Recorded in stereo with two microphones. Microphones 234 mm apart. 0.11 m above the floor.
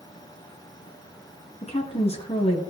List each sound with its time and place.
1.6 s a woman speaking: 25° left (ahead or behind), 1.2 m